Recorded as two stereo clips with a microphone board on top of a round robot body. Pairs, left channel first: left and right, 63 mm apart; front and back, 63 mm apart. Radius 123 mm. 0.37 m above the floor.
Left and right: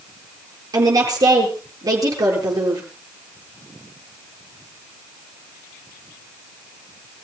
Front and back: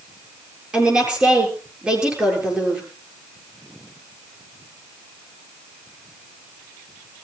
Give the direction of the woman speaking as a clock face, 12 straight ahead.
3 o'clock.